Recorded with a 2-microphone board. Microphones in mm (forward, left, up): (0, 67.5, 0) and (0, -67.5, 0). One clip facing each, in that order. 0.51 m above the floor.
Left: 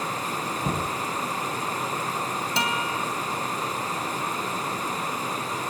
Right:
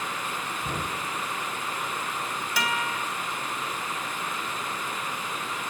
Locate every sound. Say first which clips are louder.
0.6 s knocking: left 5 dB; 45° left (ahead or behind), 4 m
2.6 s a guitar: left 1 dB; 30° left (ahead or behind), 3.5 m